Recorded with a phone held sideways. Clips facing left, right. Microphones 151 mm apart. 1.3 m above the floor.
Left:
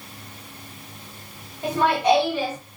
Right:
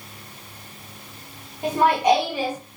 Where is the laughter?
15° right (ahead or behind), 1.0 m.